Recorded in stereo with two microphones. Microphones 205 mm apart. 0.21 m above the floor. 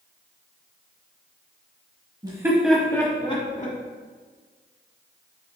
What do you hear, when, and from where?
2.2 s laughter: 20° right (ahead or behind), 1.1 m; by 3.8 s 40° left (ahead or behind), 1.3 m